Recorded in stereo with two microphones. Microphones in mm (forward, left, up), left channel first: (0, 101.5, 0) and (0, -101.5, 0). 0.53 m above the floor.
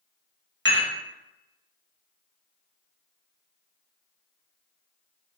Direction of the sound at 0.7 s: 65° right (ahead or behind).